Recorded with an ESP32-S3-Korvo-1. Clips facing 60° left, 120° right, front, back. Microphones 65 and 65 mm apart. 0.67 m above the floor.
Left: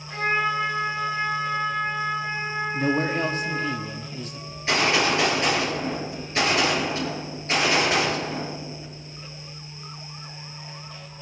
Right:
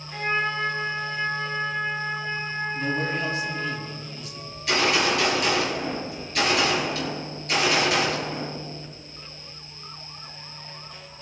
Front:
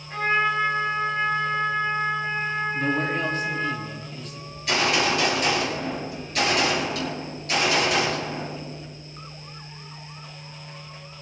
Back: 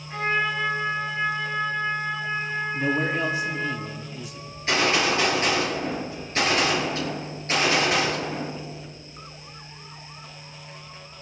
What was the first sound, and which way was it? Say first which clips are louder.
A trumpet: left 2 dB, front 2 dB; 95° left.